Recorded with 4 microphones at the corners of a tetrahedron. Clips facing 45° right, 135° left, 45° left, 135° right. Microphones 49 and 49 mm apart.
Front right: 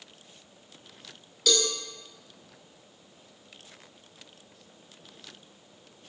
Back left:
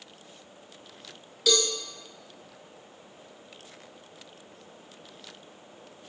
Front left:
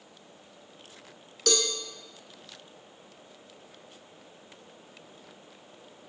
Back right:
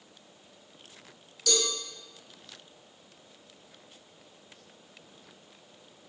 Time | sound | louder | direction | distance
1.5 | a cowbell | back left 1 dB, front left 2 dB | 50° left | 0.6 m